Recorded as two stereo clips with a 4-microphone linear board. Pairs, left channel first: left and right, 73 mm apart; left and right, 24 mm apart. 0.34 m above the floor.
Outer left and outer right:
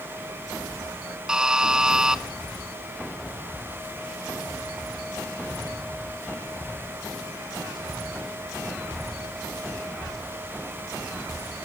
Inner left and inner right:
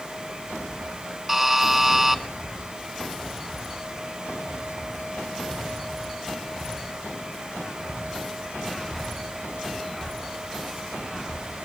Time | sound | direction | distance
1.3 | a buzzer | 10° right (ahead or behind) | 0.9 m